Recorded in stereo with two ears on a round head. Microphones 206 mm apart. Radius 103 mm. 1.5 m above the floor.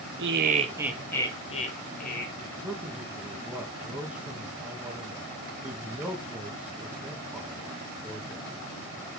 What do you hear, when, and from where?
0.2 s laughter: 55° right (ahead or behind), 1.4 m; by 2.2 s 40° left (ahead or behind), 2.5 m
2.4 s a man speaking: 5° right (ahead or behind), 1.9 m